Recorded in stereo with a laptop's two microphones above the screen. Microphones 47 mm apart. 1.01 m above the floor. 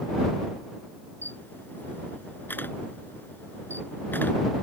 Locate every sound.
1.2 s a camera shutter: 45° left (ahead or behind)